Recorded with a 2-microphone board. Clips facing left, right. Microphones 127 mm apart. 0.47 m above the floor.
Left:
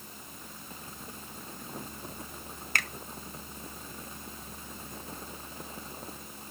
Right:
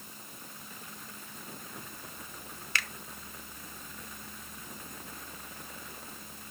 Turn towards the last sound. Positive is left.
turn(degrees=45)  # may be behind; listen again after turning